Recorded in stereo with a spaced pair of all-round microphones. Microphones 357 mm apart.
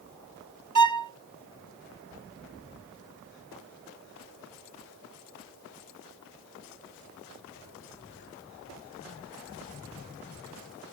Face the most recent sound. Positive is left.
turn(degrees=-60)  # may be behind; listen again after turning